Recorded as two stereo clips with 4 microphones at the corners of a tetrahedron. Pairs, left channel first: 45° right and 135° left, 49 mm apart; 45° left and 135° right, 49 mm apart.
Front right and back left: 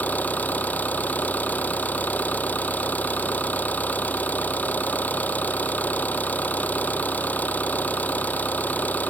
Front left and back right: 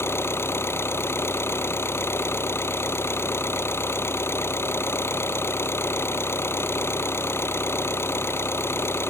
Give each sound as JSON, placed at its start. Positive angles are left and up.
{"t": 0.0, "sound": "an engine running", "azimuth_deg": 15}